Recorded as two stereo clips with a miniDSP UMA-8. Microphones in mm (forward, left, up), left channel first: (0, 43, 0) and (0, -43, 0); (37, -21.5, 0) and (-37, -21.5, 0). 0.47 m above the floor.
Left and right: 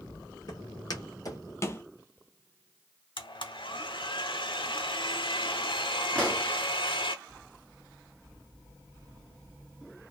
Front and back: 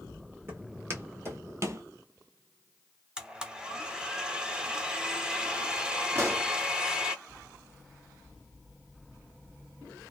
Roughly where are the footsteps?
Behind left.